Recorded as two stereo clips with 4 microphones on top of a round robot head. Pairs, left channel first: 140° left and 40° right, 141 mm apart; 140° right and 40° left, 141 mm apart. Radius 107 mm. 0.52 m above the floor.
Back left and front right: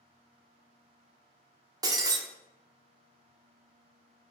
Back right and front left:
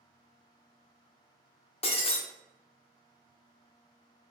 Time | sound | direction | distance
1.8 | breaking glass | 100° right | 0.6 m